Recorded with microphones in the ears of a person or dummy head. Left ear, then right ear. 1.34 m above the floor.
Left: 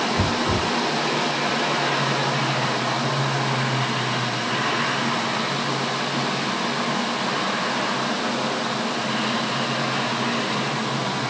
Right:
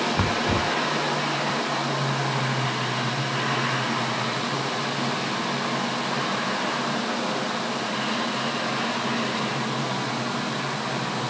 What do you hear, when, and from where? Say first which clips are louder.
0.2 s knocking: left 1 dB; 40° right (ahead or behind)